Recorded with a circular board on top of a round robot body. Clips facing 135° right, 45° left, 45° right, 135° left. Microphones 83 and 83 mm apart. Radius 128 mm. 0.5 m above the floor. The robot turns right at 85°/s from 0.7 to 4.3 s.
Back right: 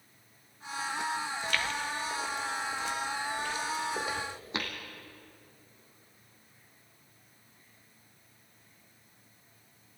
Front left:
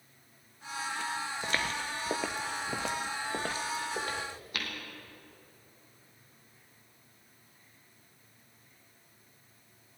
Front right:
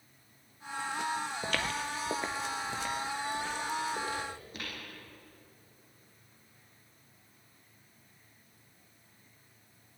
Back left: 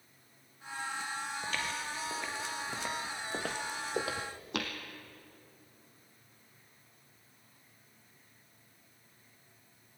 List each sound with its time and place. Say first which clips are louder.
1.4 s footsteps: front left 1 dB, front right 3 dB; 25° right, 1.0 m; by 4.7 s 155° left, 2.0 m